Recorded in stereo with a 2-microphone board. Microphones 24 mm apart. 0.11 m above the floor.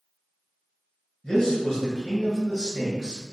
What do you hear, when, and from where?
1.2 s a man speaking: 30° left (ahead or behind), 1.2 m